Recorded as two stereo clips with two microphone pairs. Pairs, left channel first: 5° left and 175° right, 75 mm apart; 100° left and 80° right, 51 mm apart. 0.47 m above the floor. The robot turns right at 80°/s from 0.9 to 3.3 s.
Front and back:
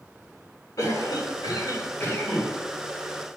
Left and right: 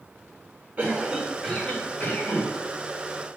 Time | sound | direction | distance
0.8 | a cough | 30° right | 3.5 m